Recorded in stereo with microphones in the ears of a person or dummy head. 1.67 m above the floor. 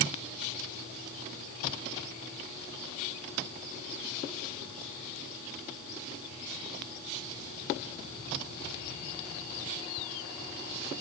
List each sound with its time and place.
Only background noise.